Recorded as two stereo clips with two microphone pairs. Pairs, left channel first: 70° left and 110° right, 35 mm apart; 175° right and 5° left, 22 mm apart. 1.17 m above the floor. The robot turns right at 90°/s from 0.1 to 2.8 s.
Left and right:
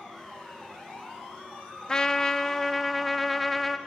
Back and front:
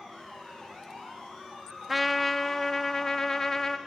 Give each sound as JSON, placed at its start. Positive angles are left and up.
{"t": 1.9, "sound": "a trumpet", "azimuth_deg": 70, "distance_m": 0.7}